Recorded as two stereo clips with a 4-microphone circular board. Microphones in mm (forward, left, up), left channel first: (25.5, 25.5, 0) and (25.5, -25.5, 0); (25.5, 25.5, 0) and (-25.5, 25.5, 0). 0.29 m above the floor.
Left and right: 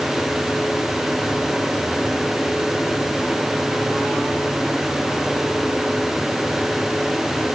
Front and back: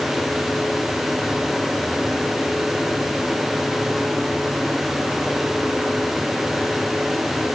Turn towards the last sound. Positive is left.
No sound to turn to.